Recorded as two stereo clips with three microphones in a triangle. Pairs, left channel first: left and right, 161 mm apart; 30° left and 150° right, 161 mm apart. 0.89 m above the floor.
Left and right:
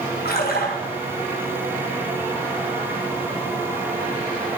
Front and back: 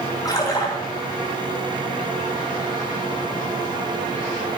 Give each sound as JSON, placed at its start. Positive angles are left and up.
{"t": 0.2, "sound": "a splash", "azimuth_deg": 100, "distance_m": 3.0}